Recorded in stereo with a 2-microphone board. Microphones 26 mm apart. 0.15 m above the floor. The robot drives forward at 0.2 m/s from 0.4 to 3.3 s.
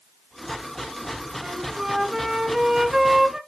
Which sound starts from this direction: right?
A flute, at 1.4 s.